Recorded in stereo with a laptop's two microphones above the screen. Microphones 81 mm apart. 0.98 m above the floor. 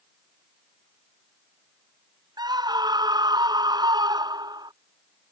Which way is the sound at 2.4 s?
60° right (ahead or behind).